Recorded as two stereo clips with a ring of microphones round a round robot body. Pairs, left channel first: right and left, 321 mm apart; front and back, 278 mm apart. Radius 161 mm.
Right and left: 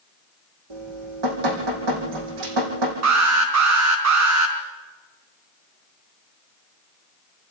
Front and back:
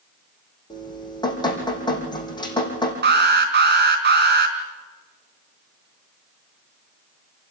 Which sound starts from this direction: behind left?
An alarm, at 3.0 s.